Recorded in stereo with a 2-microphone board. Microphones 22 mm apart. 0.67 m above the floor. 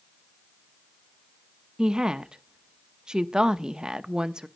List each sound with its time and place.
1.8 s a woman speaking: 35° right (ahead or behind), 0.7 m